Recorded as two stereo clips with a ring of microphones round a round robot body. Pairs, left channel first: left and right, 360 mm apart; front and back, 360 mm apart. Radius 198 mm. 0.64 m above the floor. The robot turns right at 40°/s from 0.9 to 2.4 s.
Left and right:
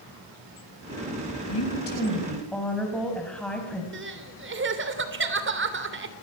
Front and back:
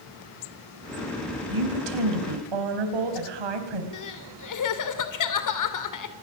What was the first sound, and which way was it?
A woman speaking, 140° left.